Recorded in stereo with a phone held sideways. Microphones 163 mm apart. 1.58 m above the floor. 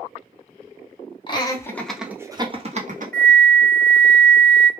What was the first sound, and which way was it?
Laughter, 30° left (ahead or behind).